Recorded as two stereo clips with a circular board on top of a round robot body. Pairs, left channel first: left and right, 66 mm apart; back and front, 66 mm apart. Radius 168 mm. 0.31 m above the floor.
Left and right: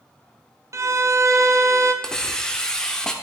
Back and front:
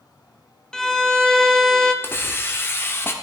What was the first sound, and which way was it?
A violin, 105° right.